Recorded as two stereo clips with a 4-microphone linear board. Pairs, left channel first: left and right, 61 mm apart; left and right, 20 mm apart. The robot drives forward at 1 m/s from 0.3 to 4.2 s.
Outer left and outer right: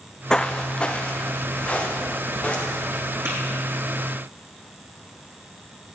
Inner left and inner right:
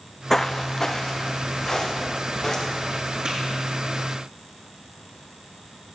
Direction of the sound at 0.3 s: 15° left (ahead or behind).